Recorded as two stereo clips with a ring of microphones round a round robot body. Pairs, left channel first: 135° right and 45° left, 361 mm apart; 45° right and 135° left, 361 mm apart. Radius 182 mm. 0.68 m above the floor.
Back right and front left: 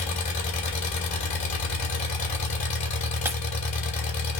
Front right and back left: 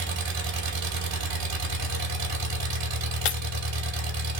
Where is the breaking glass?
40° right, 0.7 m.